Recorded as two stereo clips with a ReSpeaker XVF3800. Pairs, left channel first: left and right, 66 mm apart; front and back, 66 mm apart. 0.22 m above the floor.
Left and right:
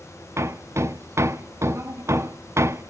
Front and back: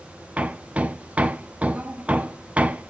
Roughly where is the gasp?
No gasp in this recording.